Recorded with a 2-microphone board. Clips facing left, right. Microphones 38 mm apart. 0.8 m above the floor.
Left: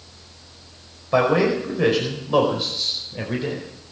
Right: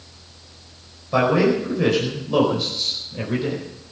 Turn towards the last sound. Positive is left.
turn(degrees=5)  # may be behind; listen again after turning